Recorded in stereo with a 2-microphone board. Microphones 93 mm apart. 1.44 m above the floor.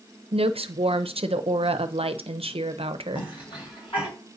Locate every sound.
0.3 s a woman speaking: 85° right, 0.6 m
3.1 s a cough: 65° left (ahead or behind), 5.5 m